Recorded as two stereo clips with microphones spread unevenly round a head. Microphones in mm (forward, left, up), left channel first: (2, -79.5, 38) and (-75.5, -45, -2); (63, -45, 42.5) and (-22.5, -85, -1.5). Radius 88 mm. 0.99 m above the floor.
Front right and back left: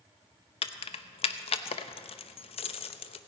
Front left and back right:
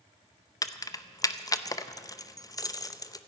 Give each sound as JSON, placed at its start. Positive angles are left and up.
{"t": 0.6, "sound": "keys jangling", "azimuth_deg": -35, "distance_m": 0.7}